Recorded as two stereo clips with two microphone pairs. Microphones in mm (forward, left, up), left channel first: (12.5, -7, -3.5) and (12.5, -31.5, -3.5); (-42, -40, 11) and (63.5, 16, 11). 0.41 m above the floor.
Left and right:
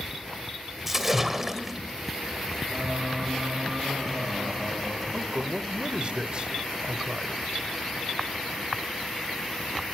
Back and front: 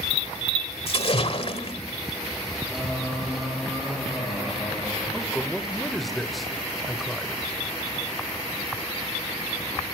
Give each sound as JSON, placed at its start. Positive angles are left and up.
{"t": 0.9, "sound": "a splash", "azimuth_deg": -165, "distance_m": 1.6}
{"t": 2.7, "sound": "singing", "azimuth_deg": -60, "distance_m": 6.5}
{"t": 5.1, "sound": "a man speaking", "azimuth_deg": -60, "distance_m": 1.3}